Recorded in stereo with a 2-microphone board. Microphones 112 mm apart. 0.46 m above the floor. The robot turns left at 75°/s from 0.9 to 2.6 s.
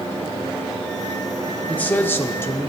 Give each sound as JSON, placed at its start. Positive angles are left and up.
{"t": 1.7, "sound": "a man speaking", "side_deg": 10, "distance_m": 0.7}